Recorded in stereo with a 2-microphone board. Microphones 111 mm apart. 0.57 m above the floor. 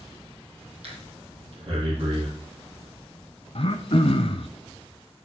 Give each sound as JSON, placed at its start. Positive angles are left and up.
{"t": 0.8, "sound": "breathing", "side_deg": -60, "distance_m": 7.0}
{"t": 3.5, "sound": "throat clearing", "side_deg": 60, "distance_m": 0.8}